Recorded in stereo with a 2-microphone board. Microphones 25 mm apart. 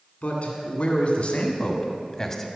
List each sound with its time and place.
0.2 s a man speaking: 60° left (ahead or behind), 2.5 m; by 2.5 s 15° left (ahead or behind), 1.4 m